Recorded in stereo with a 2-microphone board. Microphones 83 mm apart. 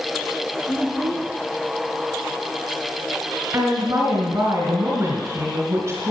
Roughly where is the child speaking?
Left.